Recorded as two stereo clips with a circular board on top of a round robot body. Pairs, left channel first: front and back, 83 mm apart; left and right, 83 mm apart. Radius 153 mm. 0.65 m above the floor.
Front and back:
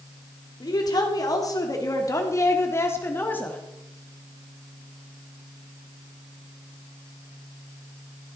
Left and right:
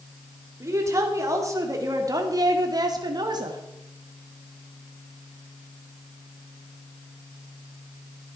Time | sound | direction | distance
0.6 | a woman speaking | 35° right | 3 m